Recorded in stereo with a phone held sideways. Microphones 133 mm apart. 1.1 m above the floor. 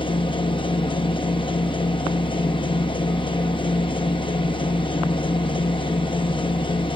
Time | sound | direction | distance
0.0 | a machine running | 40° left (ahead or behind) | 0.8 m